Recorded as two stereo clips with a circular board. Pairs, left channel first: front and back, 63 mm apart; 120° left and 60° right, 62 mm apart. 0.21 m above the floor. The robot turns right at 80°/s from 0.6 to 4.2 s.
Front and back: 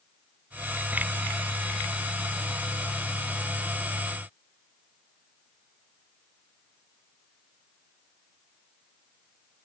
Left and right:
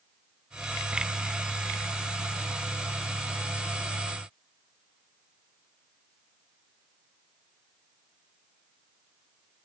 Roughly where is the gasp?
I don't hear a gasp.